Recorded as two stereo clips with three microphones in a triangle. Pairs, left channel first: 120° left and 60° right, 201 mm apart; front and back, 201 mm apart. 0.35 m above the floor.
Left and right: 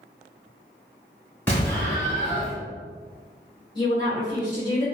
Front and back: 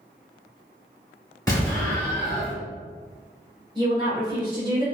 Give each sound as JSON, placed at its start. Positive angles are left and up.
{"t": 1.5, "sound": "an explosion", "azimuth_deg": 50, "distance_m": 1.6}
{"t": 3.8, "sound": "a woman speaking", "azimuth_deg": 150, "distance_m": 1.2}